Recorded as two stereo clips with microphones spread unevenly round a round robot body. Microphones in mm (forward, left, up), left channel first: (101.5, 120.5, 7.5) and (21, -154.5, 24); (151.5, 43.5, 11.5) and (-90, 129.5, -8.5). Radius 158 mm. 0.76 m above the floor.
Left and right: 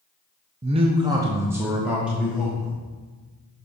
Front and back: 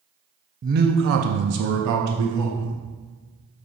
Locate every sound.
0.6 s a man speaking: 165° right, 0.5 m; by 2.7 s 165° left, 1.6 m